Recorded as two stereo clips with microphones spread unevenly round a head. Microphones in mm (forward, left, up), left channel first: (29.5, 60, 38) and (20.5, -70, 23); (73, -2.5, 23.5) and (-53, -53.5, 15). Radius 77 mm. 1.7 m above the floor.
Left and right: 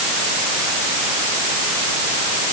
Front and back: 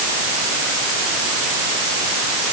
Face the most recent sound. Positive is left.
No sound to turn to.